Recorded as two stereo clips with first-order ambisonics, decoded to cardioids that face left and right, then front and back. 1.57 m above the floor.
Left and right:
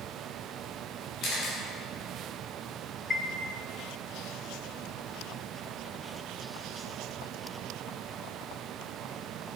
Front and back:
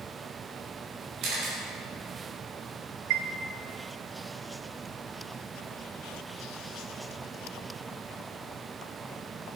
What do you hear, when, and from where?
1.2 s a camera shutter: 140° left, 4 m
3.1 s a chime: 170° left, 0.7 m